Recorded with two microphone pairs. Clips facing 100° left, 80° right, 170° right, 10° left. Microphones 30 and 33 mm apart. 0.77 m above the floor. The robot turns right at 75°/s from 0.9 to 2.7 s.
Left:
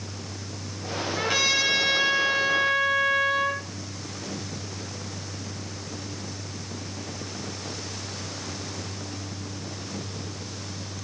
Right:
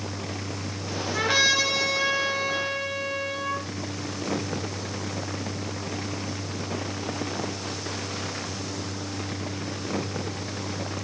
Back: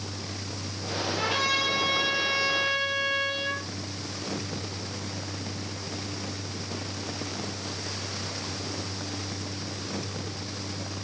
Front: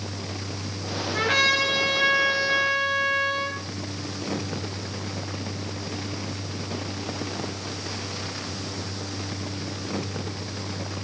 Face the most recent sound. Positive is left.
turn(degrees=90)